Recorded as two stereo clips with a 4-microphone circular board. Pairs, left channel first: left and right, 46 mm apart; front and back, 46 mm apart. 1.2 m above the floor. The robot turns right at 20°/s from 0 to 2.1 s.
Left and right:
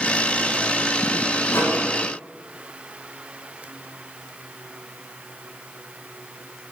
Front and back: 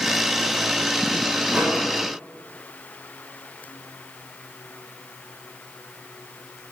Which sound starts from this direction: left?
A microwave, at 1.5 s.